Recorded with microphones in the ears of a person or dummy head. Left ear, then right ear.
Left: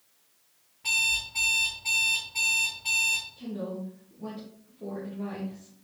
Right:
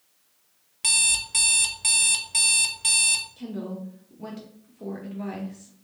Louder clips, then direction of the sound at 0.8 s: Right 2 dB; 50° right (ahead or behind).